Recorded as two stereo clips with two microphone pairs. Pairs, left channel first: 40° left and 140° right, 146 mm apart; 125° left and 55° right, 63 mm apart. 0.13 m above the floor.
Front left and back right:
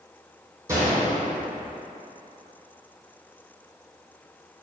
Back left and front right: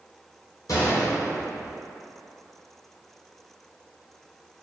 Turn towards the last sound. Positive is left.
turn(degrees=150)